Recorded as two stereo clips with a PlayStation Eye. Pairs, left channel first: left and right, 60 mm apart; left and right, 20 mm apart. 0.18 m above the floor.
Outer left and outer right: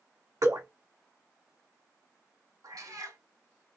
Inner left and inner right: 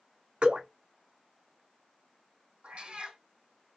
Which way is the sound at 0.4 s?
85° right.